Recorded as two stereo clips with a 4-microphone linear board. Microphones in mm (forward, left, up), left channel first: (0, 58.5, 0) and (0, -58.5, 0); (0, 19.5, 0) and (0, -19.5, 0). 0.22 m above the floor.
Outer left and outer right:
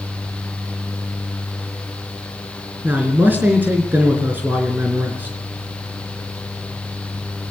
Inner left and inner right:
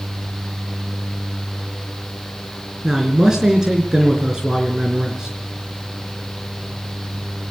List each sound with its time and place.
2.8 s a man speaking: 15° right (ahead or behind), 3.5 m